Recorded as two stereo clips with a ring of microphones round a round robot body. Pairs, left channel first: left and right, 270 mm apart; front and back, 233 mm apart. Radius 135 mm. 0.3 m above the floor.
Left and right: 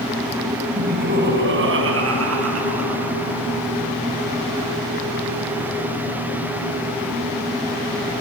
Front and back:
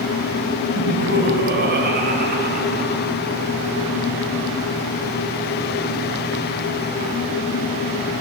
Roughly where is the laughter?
Behind right.